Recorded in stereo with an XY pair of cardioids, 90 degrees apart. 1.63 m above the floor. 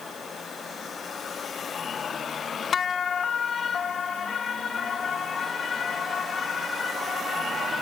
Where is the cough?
No cough in this recording.